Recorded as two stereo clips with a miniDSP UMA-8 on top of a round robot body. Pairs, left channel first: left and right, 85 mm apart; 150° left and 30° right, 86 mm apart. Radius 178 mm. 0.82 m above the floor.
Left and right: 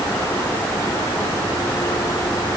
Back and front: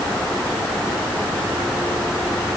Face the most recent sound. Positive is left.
No sound to turn to.